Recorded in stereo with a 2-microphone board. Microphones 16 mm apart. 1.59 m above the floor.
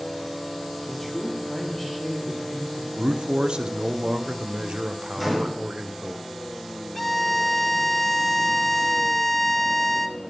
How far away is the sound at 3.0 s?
About 0.8 m.